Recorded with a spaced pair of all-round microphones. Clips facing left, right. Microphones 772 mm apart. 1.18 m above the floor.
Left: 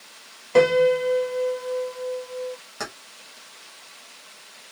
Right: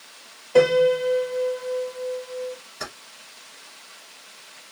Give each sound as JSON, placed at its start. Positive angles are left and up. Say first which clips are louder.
{"t": 0.6, "sound": "a piano", "louder": "even", "side_deg": 40, "distance_m": 0.7}
{"t": 2.8, "sound": "keys jangling", "louder": "left 5 dB", "side_deg": 85, "distance_m": 1.6}